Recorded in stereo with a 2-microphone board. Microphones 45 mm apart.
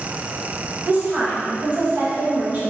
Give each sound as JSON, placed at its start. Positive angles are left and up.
{"t": 0.8, "sound": "a woman speaking", "side_deg": -35, "distance_m": 1.1}